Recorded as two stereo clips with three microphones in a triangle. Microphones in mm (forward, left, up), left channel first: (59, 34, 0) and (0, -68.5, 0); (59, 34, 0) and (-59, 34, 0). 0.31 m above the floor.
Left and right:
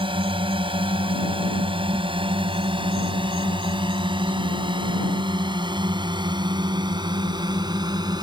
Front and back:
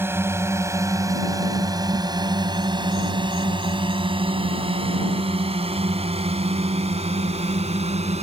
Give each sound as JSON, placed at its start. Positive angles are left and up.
{"t": 0.0, "sound": "a drone", "azimuth_deg": -115}